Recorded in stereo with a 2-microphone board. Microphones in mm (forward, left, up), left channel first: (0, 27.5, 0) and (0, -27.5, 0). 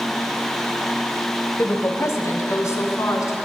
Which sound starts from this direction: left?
A woman speaking, at 1.6 s.